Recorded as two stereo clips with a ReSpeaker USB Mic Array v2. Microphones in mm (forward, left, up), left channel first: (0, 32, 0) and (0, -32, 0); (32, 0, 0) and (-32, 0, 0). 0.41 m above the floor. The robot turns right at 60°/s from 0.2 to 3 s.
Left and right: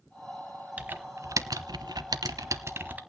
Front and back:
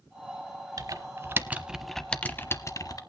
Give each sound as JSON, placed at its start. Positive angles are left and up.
{"t": 0.8, "sound": "typing on a keyboard", "azimuth_deg": -160, "distance_m": 0.8}